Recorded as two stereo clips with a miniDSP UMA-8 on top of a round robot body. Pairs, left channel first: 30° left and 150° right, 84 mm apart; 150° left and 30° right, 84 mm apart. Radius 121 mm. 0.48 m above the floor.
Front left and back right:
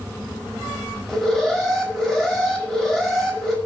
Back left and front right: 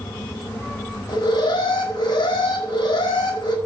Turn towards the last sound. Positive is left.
turn(degrees=110)